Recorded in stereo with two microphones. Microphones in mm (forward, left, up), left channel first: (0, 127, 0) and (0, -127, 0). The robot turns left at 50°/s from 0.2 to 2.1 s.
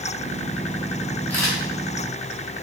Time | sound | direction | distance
1.3 | a camera shutter | 5° left (ahead or behind) | 1.2 m